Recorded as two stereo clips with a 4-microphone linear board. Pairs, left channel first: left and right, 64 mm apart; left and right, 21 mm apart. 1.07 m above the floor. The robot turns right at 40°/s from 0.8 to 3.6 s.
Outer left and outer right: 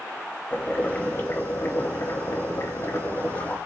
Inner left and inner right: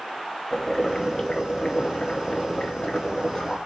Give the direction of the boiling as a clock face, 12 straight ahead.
11 o'clock.